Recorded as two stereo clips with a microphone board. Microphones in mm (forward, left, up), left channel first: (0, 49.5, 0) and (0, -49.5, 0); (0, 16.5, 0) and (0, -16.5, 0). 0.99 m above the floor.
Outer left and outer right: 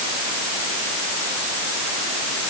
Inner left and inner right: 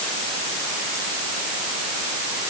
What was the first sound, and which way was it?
Only background noise.